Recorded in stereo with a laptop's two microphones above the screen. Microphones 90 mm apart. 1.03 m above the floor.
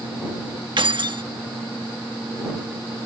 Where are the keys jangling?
60° right (ahead or behind).